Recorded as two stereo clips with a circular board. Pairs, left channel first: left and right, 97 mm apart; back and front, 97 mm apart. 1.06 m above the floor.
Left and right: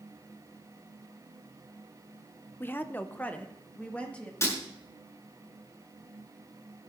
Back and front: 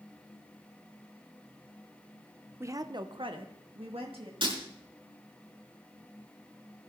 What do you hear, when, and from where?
2.6 s a woman speaking: 40° left, 0.6 m; by 4.3 s 15° left, 2.5 m
4.4 s breaking glass: 30° left, 5.5 m